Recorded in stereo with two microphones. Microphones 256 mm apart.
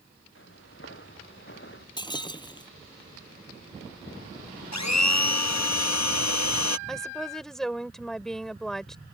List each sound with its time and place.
0.3 s footsteps: 50° left (ahead or behind); by 1.9 s 45° left (ahead or behind)
2.0 s breaking glass: 15° left (ahead or behind)
4.7 s a blender: 80° left
6.9 s a woman speaking: centre (ahead or behind)